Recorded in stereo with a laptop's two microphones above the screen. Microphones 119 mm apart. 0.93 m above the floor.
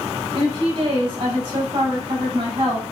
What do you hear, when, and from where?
0.3 s a woman speaking: 45° right (ahead or behind), 1.7 m